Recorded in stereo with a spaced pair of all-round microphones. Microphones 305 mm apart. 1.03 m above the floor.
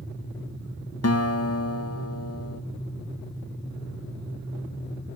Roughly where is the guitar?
Left.